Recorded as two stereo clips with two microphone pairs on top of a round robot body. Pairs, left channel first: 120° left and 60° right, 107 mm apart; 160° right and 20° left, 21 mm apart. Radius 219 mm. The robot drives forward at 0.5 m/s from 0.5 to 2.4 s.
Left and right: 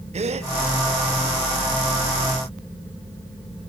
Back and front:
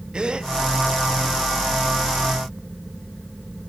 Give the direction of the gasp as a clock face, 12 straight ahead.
1 o'clock.